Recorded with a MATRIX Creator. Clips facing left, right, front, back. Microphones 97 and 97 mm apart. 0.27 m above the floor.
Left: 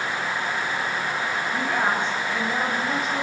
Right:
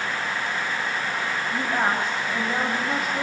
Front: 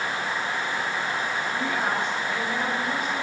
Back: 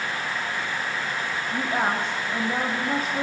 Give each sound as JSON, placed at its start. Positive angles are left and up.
{"t": 1.5, "sound": "a woman speaking", "azimuth_deg": -165, "distance_m": 1.7}